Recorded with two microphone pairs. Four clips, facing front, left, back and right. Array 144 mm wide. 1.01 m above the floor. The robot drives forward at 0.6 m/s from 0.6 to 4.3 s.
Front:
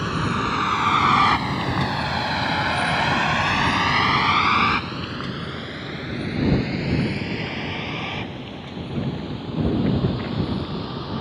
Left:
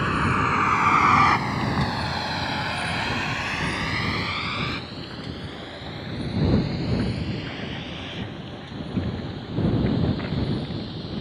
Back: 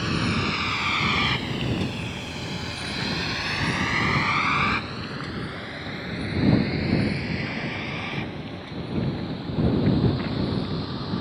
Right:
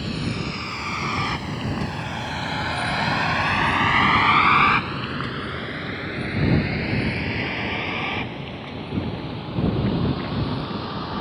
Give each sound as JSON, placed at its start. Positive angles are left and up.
{"t": 0.0, "sound": "a vehicle", "azimuth_deg": 60}